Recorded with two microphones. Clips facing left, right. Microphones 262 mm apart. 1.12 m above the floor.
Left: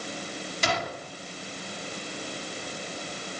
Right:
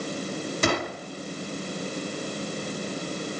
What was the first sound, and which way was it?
A gunshot, 55° right (ahead or behind).